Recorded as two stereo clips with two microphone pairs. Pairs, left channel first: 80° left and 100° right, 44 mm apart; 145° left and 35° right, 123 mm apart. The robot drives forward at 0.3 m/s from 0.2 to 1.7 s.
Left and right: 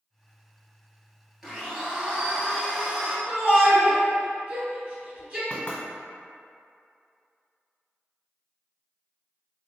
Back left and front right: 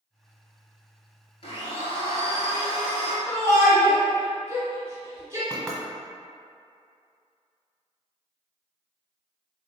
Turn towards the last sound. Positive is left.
turn(degrees=70)